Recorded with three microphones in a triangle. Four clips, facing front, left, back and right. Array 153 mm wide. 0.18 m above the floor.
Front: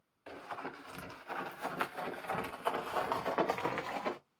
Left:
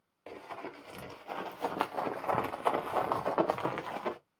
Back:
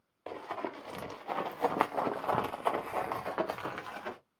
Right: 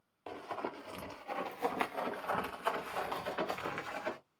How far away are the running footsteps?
About 1.6 m.